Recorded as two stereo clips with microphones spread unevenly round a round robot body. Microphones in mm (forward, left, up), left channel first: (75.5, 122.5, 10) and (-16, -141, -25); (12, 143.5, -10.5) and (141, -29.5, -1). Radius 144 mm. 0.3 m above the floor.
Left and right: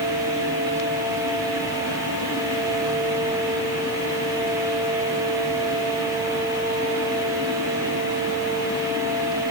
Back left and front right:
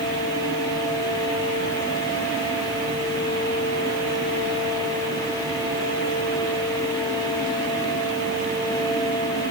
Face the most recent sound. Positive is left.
No sound to turn to.